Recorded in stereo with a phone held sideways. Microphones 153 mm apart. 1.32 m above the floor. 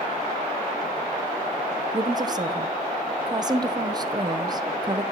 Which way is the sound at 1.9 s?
25° right (ahead or behind).